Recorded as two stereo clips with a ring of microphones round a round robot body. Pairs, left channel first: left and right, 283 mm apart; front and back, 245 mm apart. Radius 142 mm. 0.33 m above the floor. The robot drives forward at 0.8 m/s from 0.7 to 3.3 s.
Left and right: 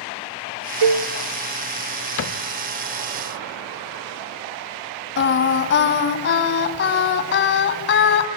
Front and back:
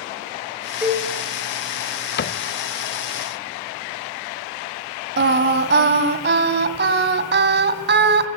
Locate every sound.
0.8 s a cowbell: 95° right, 0.8 m; by 1.1 s 110° right, 0.8 m
2.2 s a cupboard door: 45° left, 0.8 m; by 2.5 s 60° left, 0.7 m
5.2 s singing: 140° left, 2.0 m